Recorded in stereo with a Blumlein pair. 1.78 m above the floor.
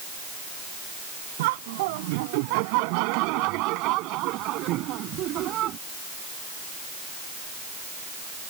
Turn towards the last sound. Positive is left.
turn(degrees=-35)